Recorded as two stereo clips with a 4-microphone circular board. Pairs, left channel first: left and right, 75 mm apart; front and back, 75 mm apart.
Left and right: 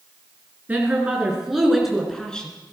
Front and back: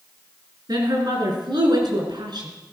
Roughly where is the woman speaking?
Behind.